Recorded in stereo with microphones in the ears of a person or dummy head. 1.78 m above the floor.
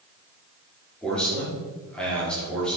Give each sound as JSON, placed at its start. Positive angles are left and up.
{"t": 1.0, "sound": "a man speaking", "side_deg": 0, "distance_m": 6.0}